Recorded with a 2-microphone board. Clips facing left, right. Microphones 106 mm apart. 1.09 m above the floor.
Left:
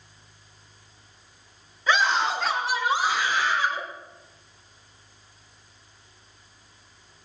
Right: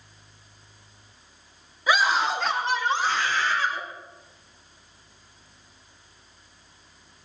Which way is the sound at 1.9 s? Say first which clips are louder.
Even; 10° right (ahead or behind).